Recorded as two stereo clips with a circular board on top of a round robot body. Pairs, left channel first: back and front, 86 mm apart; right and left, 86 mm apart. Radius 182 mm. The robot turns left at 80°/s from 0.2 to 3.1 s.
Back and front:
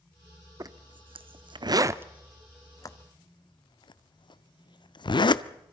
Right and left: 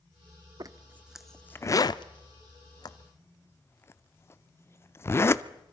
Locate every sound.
0.6 s a zipper: 50° left, 0.8 m; by 5.4 s 150° right, 0.8 m